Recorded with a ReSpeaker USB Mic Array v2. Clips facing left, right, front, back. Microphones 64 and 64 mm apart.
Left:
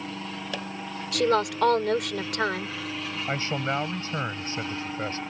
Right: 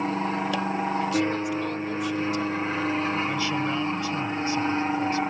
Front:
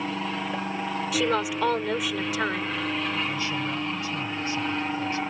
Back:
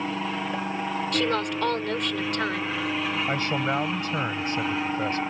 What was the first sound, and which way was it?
An aircraft, 95° right.